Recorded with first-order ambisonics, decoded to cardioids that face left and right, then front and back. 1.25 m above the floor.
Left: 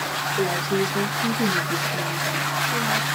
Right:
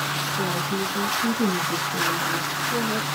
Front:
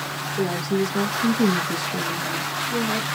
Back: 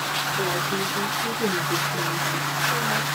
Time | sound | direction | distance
0.4 | a woman speaking | 35° left | 1.0 m